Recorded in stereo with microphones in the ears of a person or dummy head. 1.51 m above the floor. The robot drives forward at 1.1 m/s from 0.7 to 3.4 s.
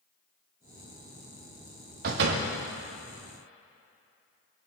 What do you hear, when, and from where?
2.0 s a door slam: 50° right (ahead or behind), 2 m; by 2.5 s 60° right (ahead or behind), 1.8 m